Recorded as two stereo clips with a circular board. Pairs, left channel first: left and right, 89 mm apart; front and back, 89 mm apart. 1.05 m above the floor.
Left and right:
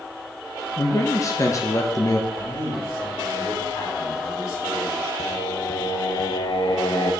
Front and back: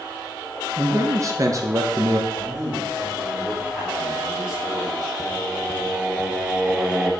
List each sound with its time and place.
0.8 s a man speaking: 135° left, 0.9 m
2.3 s a man speaking: 100° left, 3.5 m
5.2 s singing: 95° left, 0.8 m